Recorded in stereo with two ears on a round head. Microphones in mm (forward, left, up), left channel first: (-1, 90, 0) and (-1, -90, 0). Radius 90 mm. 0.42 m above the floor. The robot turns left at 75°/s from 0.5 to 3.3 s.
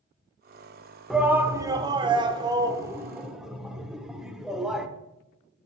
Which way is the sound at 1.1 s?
5° right (ahead or behind).